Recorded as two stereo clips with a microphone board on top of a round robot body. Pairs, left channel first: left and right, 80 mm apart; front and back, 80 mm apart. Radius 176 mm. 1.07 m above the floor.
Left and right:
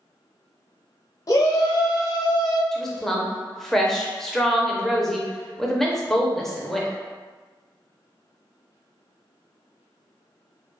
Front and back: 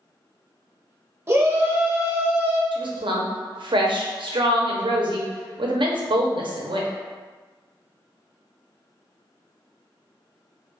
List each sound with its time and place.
1.3 s a shout: 130° left, 0.9 m
2.7 s a woman speaking: 175° left, 0.7 m